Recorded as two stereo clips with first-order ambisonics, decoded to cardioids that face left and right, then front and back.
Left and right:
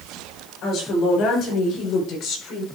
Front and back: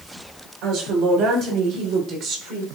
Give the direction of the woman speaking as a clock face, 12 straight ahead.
7 o'clock.